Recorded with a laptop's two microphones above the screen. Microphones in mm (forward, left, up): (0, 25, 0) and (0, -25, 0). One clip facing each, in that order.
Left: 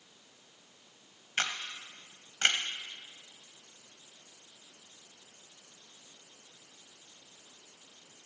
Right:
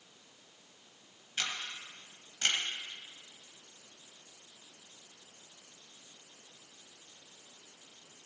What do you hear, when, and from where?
1.4 s a camera shutter: 50° left (ahead or behind), 1.5 m